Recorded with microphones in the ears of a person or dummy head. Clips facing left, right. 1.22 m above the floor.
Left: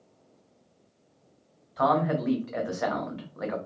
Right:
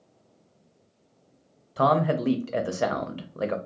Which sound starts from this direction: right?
A man speaking, at 1.8 s.